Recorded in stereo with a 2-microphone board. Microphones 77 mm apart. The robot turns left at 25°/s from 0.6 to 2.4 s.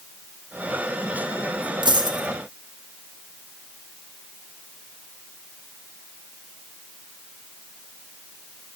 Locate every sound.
1.8 s a dropped coin: 80° right, 3 m; by 2.3 s 65° right (ahead or behind), 3 m